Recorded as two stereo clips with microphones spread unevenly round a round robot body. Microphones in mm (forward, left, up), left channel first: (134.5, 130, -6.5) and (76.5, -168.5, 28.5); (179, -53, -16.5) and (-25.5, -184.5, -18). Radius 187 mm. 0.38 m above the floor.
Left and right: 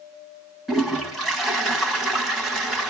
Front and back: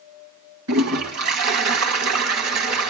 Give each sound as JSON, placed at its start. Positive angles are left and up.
{"t": 0.7, "sound": "a toilet flushing", "azimuth_deg": 165, "distance_m": 1.1}